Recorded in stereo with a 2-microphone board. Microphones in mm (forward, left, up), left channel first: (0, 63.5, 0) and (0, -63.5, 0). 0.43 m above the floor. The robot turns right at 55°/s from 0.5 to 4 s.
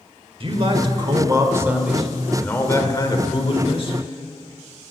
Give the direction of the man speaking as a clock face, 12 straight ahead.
3 o'clock.